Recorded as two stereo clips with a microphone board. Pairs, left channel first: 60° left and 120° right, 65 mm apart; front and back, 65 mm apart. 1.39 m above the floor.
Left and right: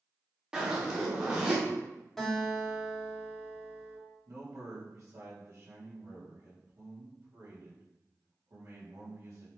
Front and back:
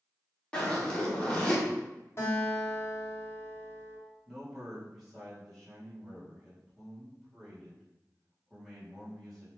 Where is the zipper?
55° right, 1.1 m.